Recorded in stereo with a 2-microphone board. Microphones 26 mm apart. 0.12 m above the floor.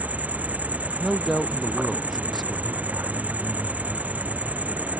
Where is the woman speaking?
Centre (ahead or behind).